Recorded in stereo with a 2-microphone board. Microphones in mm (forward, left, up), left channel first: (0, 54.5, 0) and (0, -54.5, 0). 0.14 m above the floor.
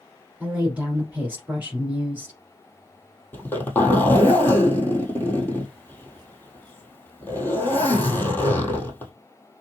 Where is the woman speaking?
15° right (ahead or behind), 2 m.